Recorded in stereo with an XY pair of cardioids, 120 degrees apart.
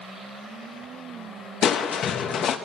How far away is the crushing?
About 1.0 m.